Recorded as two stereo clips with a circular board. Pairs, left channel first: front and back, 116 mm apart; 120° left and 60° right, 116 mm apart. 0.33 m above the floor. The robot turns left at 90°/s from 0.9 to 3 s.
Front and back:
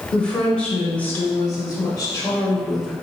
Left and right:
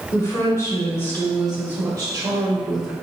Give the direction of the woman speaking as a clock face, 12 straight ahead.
9 o'clock.